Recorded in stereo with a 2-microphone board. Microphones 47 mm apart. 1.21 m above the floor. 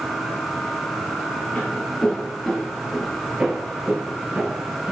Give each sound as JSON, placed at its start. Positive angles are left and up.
{"t": 1.6, "sound": "footsteps", "side_deg": 25, "distance_m": 1.7}